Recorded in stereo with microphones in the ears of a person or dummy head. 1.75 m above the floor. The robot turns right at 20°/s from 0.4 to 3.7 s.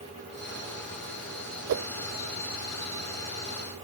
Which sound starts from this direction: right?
A whoosh, at 1.7 s.